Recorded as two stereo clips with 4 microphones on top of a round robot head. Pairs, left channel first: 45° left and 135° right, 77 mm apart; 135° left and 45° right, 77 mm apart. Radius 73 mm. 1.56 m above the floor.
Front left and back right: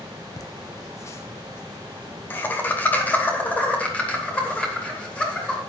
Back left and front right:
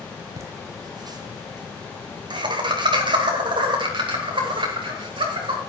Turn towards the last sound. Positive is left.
turn(degrees=-30)